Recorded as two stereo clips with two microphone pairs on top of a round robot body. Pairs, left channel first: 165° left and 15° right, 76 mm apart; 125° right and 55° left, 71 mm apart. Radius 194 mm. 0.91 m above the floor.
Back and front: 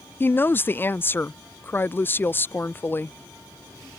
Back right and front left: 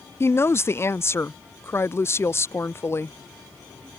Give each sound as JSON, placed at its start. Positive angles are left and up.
{"t": 0.2, "sound": "a woman speaking", "azimuth_deg": -145}